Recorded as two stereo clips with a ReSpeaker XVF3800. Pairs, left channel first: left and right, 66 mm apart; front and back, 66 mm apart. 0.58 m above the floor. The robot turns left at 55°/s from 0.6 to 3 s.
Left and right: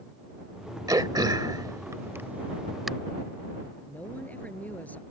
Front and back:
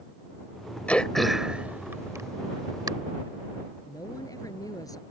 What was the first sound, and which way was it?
Throat clearing, 70° right.